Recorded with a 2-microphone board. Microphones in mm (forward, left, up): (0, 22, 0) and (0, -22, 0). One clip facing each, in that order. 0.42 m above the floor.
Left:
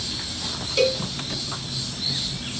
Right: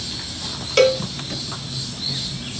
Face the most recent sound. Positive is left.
turn(degrees=-65)  # may be behind; listen again after turning